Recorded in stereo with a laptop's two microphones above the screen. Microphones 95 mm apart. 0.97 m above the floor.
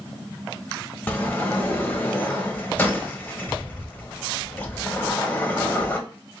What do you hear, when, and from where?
1.1 s a sliding door: 15° left (ahead or behind), 0.8 m